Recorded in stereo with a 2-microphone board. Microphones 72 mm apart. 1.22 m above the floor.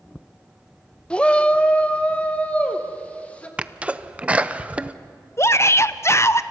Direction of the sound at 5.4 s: 40° left (ahead or behind).